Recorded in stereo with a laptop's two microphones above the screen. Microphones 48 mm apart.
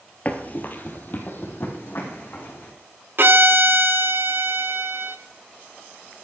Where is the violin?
50° right (ahead or behind), 0.7 m.